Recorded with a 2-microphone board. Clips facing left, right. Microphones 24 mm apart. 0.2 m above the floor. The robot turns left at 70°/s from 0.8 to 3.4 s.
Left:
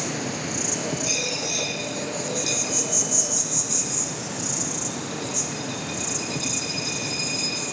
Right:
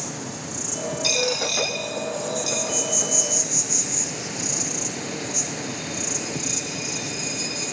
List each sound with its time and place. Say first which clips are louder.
0.0 s an insect: left 4 dB; 145° left, 1.6 m; by 7.7 s 40° right, 1.6 m
1.0 s a dropped coin: right 7 dB; 80° right, 3.5 m; by 7.6 s 65° left (ahead or behind), 3.5 m